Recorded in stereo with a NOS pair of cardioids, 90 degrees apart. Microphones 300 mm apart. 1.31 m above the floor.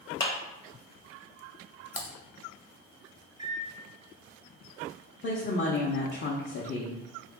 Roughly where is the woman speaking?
Ahead left.